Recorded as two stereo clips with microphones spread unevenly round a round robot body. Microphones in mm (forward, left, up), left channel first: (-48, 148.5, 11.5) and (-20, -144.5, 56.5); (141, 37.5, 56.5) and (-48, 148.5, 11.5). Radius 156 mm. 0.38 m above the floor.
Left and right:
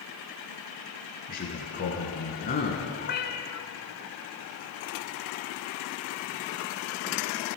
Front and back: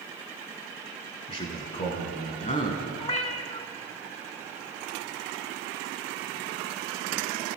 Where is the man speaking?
35° left, 4.5 m; by 2.9 s 25° left, 3 m.